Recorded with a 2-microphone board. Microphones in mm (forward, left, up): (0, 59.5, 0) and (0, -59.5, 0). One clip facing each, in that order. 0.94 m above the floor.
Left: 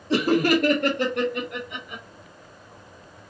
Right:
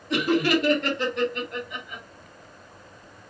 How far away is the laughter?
About 0.6 m.